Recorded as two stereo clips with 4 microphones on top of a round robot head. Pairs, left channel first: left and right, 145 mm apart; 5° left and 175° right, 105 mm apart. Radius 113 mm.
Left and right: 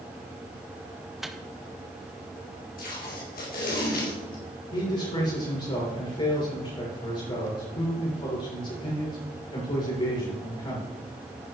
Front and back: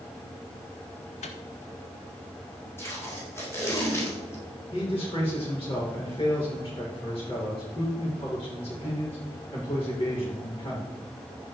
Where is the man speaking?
45° left, 4.5 m.